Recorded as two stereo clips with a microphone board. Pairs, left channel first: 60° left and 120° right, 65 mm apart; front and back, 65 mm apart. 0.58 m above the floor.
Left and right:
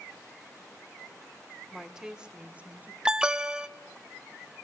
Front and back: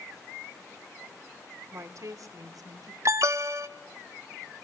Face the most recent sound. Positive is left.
turn(degrees=165)